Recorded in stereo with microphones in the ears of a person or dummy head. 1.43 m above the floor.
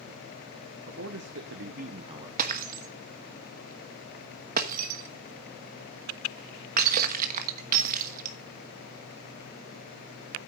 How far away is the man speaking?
About 1.4 m.